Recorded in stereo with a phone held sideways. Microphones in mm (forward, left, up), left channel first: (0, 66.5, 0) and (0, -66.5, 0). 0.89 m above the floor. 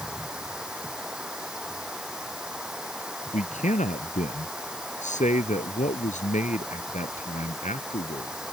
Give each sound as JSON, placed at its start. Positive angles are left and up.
{"t": 0.0, "sound": "running water", "side_deg": -5}
{"t": 3.3, "sound": "a man speaking", "side_deg": 75}